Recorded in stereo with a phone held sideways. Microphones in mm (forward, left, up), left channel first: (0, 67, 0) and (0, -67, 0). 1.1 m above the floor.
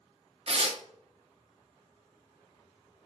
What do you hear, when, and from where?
0.5 s tearing paper: 50° right (ahead or behind), 0.8 m